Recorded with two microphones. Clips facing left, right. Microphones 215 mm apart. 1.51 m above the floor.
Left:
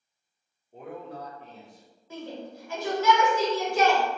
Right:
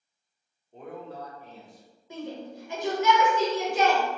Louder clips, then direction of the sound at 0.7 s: Even; 5° left (ahead or behind).